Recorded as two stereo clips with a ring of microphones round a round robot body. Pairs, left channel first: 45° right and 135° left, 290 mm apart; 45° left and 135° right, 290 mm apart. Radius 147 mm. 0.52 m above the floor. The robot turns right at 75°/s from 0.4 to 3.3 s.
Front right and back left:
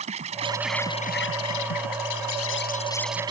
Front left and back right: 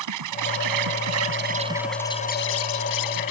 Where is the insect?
155° right; by 3.3 s 60° left.